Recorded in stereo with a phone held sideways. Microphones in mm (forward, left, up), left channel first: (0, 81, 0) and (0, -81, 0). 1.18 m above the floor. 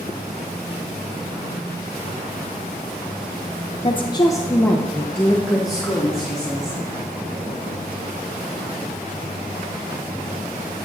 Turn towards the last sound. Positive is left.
turn(degrees=-5)  # may be behind; listen again after turning